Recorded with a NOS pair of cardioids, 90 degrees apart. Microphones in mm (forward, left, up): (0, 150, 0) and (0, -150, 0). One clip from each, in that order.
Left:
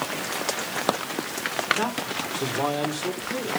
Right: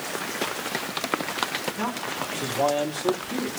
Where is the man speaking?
20° left, 3 m; by 3.5 s straight ahead, 3 m.